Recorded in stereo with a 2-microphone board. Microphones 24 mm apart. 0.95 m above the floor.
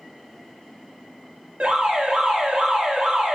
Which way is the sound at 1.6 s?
55° right (ahead or behind).